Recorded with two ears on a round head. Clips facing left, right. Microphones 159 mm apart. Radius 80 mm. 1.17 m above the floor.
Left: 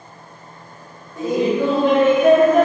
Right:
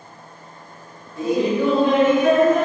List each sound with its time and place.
1.2 s laughter: 45° left (ahead or behind), 1.6 m